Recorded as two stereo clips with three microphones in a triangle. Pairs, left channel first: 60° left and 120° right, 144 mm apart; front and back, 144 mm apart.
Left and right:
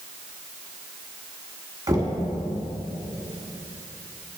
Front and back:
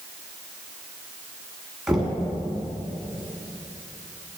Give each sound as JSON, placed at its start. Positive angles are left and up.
{"t": 1.9, "sound": "knocking", "azimuth_deg": -95, "distance_m": 1.5}